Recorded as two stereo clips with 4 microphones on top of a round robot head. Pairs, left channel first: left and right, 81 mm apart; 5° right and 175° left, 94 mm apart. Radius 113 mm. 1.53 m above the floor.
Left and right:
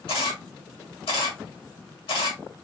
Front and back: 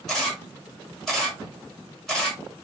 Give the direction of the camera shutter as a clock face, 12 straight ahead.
9 o'clock.